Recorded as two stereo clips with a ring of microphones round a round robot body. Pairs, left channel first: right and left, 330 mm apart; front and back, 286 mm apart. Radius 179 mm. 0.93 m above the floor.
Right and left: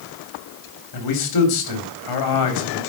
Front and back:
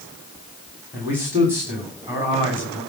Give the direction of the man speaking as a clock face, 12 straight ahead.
3 o'clock.